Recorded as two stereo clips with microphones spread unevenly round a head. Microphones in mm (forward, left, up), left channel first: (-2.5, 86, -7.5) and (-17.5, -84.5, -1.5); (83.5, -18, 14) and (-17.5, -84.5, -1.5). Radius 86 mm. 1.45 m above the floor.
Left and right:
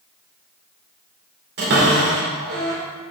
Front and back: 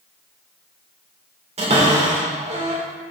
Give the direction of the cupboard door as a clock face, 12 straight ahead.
4 o'clock.